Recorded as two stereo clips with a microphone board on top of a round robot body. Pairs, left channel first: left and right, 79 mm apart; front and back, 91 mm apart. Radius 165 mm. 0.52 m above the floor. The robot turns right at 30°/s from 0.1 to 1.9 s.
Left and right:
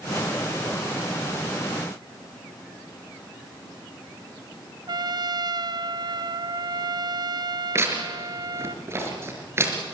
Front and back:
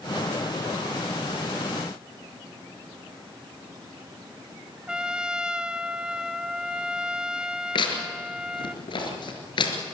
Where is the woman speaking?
I don't hear a woman speaking.